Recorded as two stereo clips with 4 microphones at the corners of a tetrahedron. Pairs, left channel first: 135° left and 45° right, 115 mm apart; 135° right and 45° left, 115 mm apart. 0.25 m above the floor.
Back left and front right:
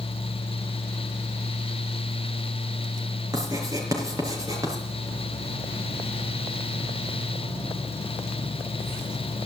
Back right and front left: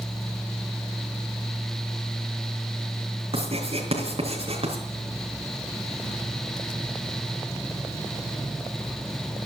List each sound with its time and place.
3.3 s writing: 15° left, 5 m